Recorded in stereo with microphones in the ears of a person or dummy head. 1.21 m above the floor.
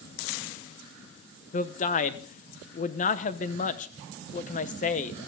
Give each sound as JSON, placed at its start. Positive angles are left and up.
{"t": 1.5, "sound": "a man speaking", "side_deg": 35, "distance_m": 0.9}